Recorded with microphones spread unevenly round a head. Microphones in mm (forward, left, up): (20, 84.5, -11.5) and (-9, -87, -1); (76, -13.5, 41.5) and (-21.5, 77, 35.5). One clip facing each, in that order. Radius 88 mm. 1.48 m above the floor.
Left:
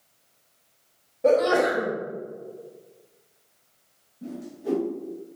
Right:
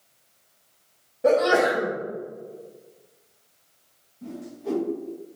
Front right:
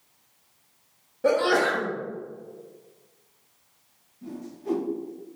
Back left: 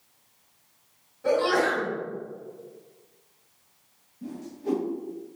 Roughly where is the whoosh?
Behind left.